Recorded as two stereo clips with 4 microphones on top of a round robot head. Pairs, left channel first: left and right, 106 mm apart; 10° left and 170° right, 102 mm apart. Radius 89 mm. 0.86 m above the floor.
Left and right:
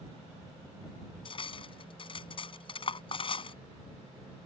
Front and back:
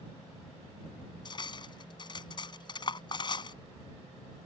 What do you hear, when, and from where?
1.2 s cutlery clinking: 55° left